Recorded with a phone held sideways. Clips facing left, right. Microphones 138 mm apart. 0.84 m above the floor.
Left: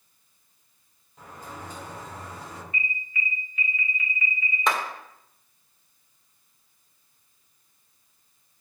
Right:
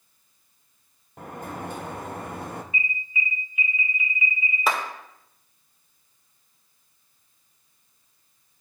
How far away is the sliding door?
About 0.7 m.